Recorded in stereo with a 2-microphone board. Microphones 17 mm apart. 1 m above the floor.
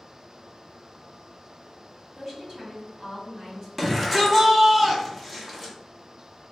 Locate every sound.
2.1 s a woman speaking: 25° right (ahead or behind), 1.8 m
3.8 s a shout: 5° right (ahead or behind), 1.2 m